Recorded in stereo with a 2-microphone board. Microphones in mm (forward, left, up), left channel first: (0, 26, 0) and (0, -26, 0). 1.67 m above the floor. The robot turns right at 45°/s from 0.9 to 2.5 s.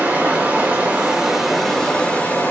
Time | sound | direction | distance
0.0 | running water | 35° right | 4 m